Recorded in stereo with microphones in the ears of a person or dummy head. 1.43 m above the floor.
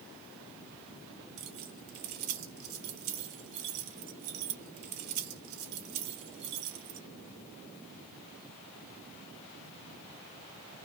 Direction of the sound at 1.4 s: 40° right (ahead or behind).